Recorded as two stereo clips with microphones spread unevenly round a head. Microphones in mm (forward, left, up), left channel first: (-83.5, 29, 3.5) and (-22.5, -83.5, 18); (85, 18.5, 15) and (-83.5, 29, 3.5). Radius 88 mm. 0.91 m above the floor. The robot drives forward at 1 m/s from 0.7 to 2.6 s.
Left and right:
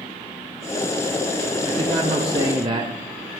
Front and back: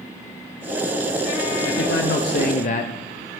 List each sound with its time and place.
1.7 s a man speaking: 10° right, 1.7 m; by 3.3 s 20° right, 0.9 m